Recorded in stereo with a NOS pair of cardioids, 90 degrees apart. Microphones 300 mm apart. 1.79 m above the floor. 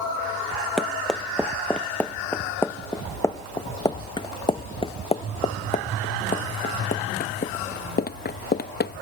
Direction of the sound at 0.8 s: Straight ahead.